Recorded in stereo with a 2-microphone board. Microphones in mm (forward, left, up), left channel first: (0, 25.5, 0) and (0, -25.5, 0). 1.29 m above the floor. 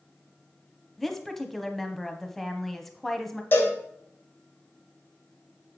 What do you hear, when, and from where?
1.0 s a woman speaking: 5° left (ahead or behind), 1.0 m
3.5 s a cowbell: 40° left (ahead or behind), 2.5 m